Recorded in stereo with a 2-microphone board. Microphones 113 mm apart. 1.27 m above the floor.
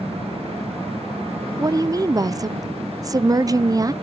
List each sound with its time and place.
1.6 s a woman speaking: 30° right (ahead or behind), 0.5 m